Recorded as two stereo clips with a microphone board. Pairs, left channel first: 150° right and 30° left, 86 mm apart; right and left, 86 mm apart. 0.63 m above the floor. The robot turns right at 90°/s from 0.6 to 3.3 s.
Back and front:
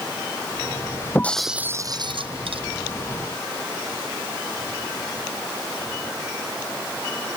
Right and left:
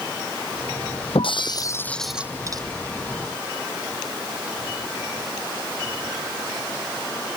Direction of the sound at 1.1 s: 85° right.